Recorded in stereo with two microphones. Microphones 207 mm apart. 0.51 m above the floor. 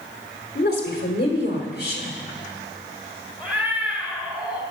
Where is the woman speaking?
50° left (ahead or behind), 1.4 m.